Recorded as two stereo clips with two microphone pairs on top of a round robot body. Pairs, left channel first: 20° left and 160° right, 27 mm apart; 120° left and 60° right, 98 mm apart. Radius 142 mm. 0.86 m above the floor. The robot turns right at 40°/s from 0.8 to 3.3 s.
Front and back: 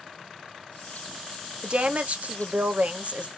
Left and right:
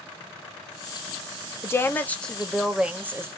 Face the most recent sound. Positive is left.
turn(degrees=-130)